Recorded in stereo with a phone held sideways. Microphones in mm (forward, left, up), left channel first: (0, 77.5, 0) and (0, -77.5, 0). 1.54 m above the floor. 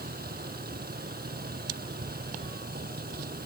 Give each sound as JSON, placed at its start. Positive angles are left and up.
{"t": 0.0, "sound": "a vehicle", "side_deg": -80}